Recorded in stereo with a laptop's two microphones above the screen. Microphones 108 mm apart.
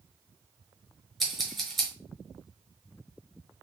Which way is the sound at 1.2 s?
Centre (ahead or behind).